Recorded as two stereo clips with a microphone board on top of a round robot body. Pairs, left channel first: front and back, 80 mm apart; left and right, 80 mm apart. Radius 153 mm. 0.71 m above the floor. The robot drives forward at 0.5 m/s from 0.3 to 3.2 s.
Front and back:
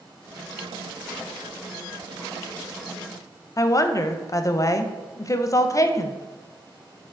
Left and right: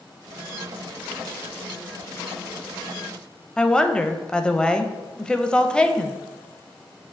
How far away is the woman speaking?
About 0.6 m.